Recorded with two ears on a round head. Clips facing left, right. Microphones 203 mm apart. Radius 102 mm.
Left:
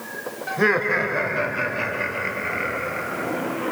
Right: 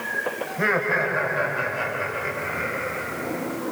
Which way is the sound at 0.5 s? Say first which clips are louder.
Left 5 dB; 55° left (ahead or behind).